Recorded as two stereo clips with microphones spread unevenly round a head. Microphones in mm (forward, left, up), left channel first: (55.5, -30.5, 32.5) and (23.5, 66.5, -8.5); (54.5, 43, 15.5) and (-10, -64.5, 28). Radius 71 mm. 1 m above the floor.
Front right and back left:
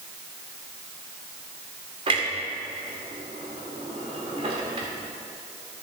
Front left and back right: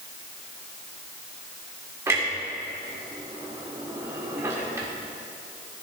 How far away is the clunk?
About 1.5 m.